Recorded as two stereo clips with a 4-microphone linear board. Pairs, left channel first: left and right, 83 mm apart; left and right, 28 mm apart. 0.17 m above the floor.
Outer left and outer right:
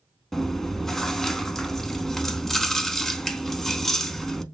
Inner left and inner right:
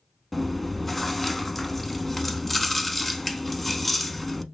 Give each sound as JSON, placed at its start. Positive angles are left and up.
{"t": 0.3, "sound": "chewing", "side_deg": 5, "distance_m": 0.6}